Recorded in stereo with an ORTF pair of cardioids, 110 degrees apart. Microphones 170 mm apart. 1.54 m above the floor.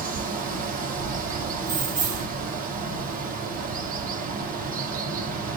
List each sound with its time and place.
0.0 s running water: 60° right, 6 m
1.6 s keys jangling: 50° right, 2.5 m